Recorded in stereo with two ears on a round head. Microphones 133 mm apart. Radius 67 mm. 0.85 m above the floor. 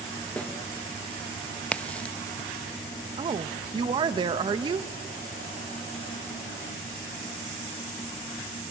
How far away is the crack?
About 0.7 m.